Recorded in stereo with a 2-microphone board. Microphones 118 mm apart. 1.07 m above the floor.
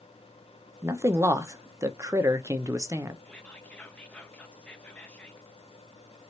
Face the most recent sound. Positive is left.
turn(degrees=10)  # may be behind; listen again after turning